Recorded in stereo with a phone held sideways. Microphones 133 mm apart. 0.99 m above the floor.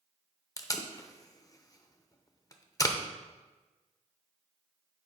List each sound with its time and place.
0.6 s tape being pulled: 25° left (ahead or behind), 0.7 m